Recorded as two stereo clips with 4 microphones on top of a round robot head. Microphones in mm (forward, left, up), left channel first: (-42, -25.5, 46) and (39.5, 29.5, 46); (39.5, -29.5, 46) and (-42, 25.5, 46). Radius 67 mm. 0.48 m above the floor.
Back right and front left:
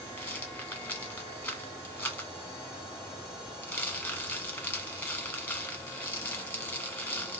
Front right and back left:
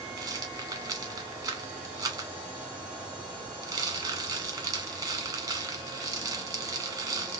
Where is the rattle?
160° left, 1.6 m.